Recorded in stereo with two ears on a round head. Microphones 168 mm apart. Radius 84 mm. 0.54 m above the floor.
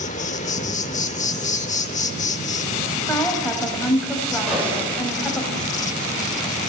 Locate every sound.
0.0 s an insect: 40° left (ahead or behind), 0.8 m
3.1 s a woman speaking: 5° left (ahead or behind), 3 m
4.5 s a gunshot: 5° right (ahead or behind), 8 m